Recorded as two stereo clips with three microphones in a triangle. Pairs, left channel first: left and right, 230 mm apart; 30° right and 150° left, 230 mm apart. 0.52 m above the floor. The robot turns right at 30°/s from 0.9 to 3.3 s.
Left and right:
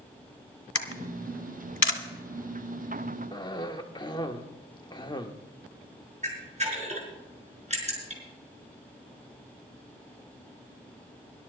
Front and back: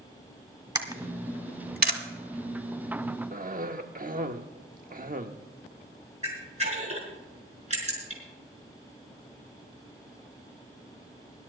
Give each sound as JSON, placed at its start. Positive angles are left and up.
{"t": 0.8, "sound": "a camera shutter", "azimuth_deg": 80, "distance_m": 1.6}
{"t": 3.3, "sound": "a cough", "azimuth_deg": 145, "distance_m": 1.0}
{"t": 6.2, "sound": "a camera shutter", "azimuth_deg": -150, "distance_m": 5.0}